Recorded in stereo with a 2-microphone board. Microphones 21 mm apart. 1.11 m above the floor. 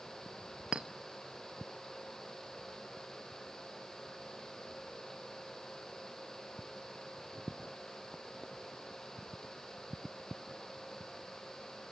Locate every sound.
0.7 s a clink: 55° right (ahead or behind), 0.8 m